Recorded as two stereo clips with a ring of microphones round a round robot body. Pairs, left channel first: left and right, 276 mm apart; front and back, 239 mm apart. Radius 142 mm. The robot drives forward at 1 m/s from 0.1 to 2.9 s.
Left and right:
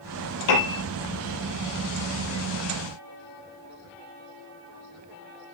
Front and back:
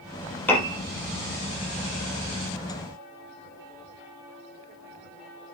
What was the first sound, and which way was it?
A piano, 85° left.